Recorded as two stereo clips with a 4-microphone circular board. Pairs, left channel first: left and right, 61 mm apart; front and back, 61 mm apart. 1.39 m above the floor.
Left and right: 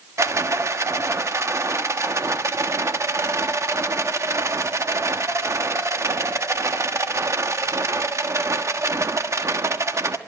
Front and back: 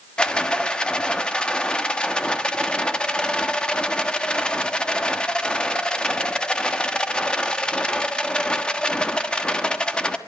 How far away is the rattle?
About 1.3 m.